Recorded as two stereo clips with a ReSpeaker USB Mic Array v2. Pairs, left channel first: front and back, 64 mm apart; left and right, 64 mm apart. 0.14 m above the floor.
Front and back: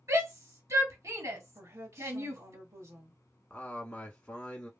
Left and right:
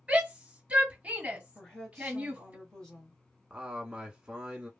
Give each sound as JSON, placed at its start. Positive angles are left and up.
{"t": 0.1, "sound": "a shout", "azimuth_deg": -160, "distance_m": 2.5}
{"t": 1.6, "sound": "a woman speaking", "azimuth_deg": 170, "distance_m": 1.9}
{"t": 3.5, "sound": "a man speaking", "azimuth_deg": -45, "distance_m": 1.1}